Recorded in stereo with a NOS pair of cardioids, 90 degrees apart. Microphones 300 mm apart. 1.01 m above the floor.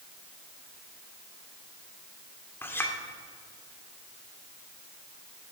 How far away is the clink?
About 2 m.